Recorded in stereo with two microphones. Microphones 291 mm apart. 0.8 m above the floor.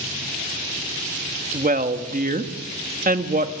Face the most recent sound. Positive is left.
turn(degrees=-30)  # may be behind; listen again after turning